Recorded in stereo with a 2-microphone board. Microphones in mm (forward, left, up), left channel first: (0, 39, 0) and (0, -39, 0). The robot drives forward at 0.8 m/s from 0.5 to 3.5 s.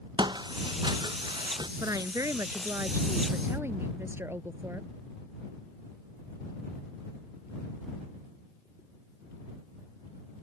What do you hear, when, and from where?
0.2 s footsteps: 75° right (ahead or behind)
1.8 s a woman speaking: 50° right (ahead or behind); by 4.9 s 35° right (ahead or behind)